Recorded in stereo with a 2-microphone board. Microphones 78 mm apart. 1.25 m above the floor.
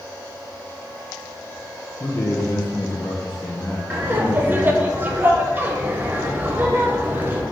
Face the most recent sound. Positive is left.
turn(degrees=-25)  # may be behind; listen again after turning